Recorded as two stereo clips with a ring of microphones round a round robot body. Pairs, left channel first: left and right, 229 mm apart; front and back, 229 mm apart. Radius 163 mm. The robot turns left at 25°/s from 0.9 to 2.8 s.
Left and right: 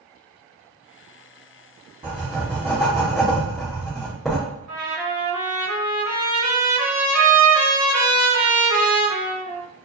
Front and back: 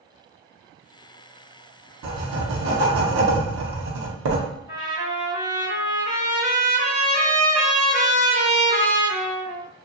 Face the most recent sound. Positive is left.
turn(degrees=-100)